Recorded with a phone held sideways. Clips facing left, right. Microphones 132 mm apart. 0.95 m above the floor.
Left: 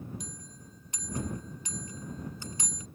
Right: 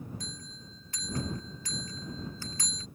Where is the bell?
20° left (ahead or behind).